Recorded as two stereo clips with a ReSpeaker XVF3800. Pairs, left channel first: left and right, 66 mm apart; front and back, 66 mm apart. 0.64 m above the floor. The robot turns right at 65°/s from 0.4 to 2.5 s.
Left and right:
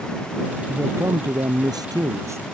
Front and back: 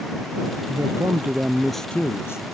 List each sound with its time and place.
0.7 s a man speaking: 155° right; by 2.5 s 35° right